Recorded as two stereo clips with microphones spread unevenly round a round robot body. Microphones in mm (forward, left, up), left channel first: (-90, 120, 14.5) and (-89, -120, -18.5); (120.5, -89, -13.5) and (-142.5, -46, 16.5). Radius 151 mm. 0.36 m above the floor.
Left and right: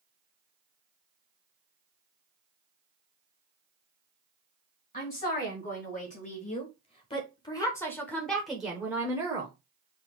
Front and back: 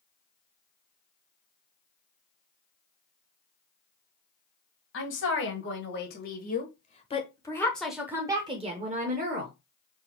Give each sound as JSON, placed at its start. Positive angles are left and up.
{"t": 4.9, "sound": "a woman speaking", "azimuth_deg": 25, "distance_m": 1.9}